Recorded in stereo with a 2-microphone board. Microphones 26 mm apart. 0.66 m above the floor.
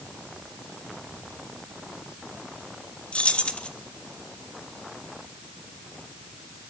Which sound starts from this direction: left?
Keys jangling, at 3.1 s.